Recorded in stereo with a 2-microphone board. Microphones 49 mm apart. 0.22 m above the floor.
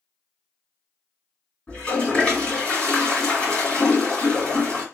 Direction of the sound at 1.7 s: 20° left (ahead or behind).